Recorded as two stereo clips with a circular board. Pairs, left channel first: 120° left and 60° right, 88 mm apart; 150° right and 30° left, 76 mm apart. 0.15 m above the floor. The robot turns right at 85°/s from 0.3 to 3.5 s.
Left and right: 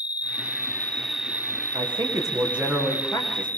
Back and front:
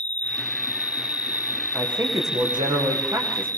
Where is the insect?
140° left, 0.8 m; by 3.6 s 55° left, 0.8 m.